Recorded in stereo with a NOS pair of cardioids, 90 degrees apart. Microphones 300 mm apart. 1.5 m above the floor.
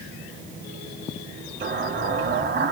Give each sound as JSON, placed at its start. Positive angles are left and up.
{"t": 1.6, "sound": "an explosion", "azimuth_deg": -35, "distance_m": 1.4}